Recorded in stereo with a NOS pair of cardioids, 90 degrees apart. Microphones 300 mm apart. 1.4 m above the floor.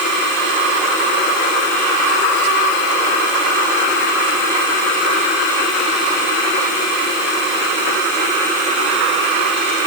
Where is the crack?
I don't hear a crack.